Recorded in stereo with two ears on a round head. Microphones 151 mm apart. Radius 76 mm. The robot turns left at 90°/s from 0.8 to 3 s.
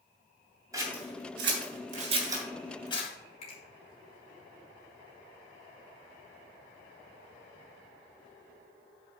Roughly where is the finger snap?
Left.